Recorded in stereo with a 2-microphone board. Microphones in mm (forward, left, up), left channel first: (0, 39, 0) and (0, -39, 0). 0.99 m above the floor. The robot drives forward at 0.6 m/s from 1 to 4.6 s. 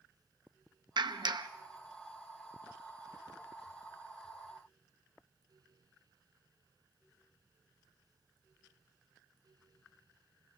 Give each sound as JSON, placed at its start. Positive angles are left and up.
{"t": 1.0, "sound": "a clap", "side_deg": -70, "distance_m": 0.9}